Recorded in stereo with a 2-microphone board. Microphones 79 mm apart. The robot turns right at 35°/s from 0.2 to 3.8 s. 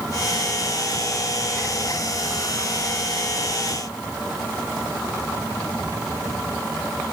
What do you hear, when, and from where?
Only background noise.